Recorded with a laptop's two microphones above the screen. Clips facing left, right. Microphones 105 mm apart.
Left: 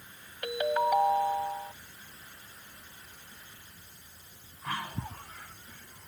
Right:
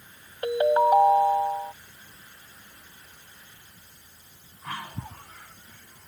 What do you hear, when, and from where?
0.4 s a ringtone: 30° right (ahead or behind)